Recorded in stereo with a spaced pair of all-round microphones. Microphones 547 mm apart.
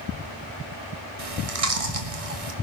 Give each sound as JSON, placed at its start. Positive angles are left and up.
{"t": 1.2, "sound": "chewing", "side_deg": -85, "distance_m": 1.5}